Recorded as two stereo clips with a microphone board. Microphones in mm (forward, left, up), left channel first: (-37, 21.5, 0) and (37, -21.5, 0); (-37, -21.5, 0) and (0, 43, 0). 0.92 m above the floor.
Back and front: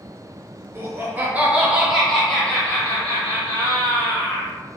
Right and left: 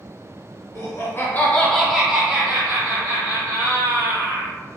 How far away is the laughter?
About 0.8 m.